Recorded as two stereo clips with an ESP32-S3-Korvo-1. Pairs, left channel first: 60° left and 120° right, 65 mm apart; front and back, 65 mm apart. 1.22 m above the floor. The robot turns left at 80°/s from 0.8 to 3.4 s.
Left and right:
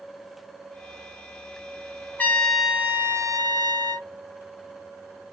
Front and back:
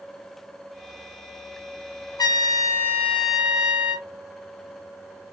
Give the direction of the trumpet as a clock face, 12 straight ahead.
12 o'clock.